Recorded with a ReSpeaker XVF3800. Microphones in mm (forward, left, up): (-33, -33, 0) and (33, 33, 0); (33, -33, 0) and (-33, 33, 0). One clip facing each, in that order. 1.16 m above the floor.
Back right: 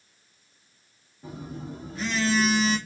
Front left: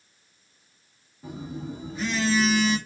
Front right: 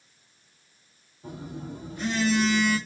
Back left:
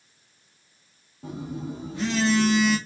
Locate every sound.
1.2 s a phone buzzing: 135° left, 1.5 m